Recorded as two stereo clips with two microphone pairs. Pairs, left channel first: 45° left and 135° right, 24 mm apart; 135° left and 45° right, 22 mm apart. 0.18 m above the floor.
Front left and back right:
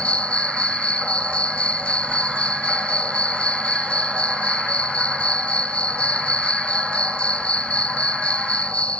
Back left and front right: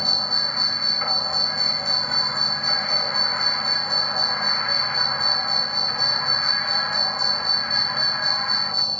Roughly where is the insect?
Ahead left.